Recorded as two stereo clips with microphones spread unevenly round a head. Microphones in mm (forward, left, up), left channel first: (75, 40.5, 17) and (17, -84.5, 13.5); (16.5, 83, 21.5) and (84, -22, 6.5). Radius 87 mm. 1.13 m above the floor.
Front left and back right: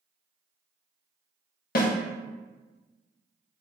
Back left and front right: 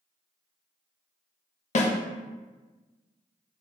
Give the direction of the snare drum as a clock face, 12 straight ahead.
9 o'clock.